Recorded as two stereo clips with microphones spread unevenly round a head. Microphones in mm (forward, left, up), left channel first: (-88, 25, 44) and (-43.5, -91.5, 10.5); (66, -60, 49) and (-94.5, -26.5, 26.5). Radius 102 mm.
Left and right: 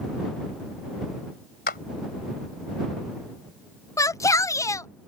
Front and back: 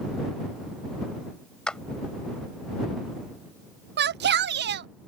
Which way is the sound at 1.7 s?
75° left.